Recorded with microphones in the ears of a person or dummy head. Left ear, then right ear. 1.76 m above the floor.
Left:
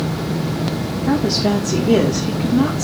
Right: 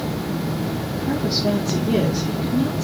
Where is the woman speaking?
60° left (ahead or behind), 3 m.